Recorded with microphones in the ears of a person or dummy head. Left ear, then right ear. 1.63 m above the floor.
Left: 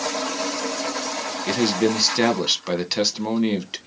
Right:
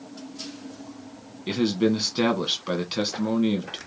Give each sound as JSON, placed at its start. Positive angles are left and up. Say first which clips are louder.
{"t": 1.5, "sound": "a man speaking", "louder": "left 2 dB", "side_deg": 20, "distance_m": 1.2}